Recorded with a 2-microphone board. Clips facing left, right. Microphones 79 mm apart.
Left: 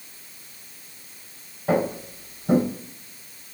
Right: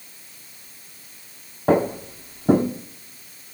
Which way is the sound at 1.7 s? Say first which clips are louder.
Right 4 dB; 40° right (ahead or behind).